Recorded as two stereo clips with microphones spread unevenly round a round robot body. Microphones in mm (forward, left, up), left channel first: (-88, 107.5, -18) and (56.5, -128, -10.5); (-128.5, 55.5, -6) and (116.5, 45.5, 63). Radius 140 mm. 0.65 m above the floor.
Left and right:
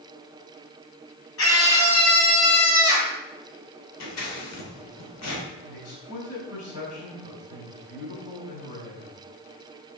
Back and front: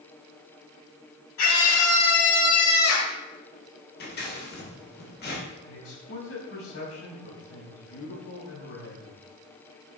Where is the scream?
160° left, 4 m; by 3.1 s 165° left, 5 m.